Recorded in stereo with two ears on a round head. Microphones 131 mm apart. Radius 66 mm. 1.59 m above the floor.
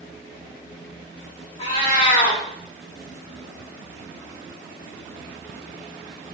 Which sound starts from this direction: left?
A cat meowing, at 1.6 s.